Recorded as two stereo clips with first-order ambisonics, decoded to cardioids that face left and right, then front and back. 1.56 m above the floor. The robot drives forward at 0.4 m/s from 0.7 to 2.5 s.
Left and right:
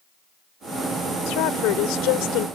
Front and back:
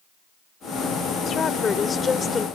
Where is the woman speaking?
65° left; by 2.5 s 70° left.